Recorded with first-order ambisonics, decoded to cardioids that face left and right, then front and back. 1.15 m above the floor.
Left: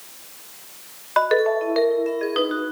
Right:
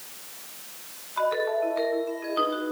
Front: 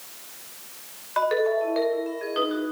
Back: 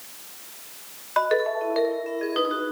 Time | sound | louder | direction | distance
1.2 | a ringtone | left 6 dB, even | 100° left | 3.5 m